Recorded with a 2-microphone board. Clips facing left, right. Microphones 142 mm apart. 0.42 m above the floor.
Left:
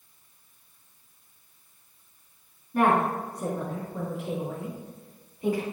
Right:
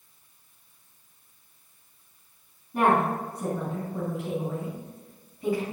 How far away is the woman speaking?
About 3.5 m.